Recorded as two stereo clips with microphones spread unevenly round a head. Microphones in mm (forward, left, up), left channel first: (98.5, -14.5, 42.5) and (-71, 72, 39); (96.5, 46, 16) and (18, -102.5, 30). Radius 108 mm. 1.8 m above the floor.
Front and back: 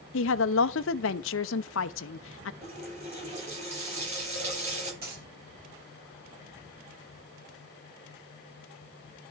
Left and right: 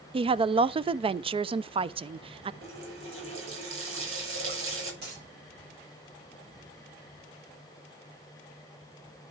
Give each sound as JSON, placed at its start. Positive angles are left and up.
{"t": 0.1, "sound": "a woman speaking", "azimuth_deg": -60, "distance_m": 0.5}
{"t": 2.6, "sound": "a running tap", "azimuth_deg": -150, "distance_m": 6.5}
{"t": 5.0, "sound": "a dropped coin", "azimuth_deg": -160, "distance_m": 5.0}